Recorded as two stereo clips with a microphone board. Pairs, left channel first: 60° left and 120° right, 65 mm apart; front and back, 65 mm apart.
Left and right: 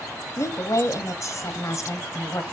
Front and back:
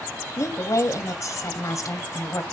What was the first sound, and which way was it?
A woman speaking, 30° left.